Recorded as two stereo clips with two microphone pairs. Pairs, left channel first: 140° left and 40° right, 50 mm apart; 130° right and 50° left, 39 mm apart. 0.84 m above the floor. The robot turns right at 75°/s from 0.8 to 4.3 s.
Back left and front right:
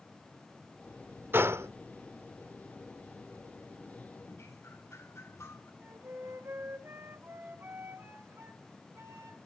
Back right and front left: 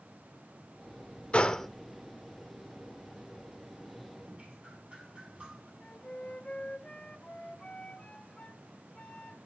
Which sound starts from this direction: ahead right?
A flute, at 5.8 s.